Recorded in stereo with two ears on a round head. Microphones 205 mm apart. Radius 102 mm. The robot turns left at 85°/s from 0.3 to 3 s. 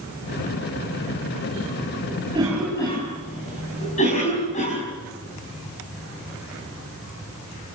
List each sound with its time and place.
2.3 s a cough: 25° right (ahead or behind), 5.5 m; by 4.8 s 35° left (ahead or behind), 5.5 m